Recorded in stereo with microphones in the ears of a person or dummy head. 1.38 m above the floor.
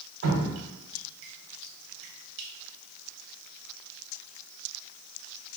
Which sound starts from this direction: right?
Dripping, at 0.2 s.